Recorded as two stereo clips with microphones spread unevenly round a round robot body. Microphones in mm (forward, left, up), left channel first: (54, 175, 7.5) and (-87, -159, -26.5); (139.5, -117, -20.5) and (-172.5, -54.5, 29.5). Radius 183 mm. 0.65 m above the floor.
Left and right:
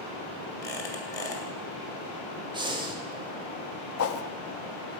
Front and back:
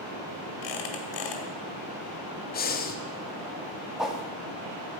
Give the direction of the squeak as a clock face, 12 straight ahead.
1 o'clock.